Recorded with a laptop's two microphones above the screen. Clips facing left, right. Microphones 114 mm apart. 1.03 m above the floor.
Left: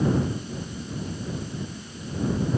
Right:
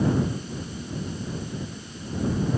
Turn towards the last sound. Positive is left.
No sound to turn to.